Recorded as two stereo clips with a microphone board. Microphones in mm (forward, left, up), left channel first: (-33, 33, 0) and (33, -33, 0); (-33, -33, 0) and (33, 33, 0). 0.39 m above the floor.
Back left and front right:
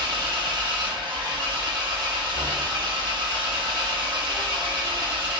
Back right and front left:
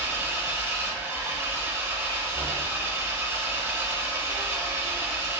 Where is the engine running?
15° right, 0.9 m.